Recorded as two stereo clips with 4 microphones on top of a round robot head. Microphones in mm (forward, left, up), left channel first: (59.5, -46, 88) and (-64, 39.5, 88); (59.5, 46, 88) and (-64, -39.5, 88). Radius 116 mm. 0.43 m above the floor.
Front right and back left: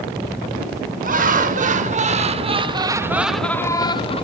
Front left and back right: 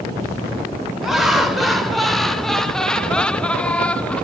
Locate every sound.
1.0 s laughter: 125° left, 1.7 m; by 4.2 s 45° right, 0.9 m